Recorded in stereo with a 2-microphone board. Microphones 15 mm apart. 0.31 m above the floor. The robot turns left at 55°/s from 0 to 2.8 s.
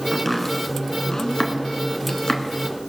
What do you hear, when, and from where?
0.1 s chopping: centre (ahead or behind), 1.7 m; by 2.4 s 50° left (ahead or behind), 1.7 m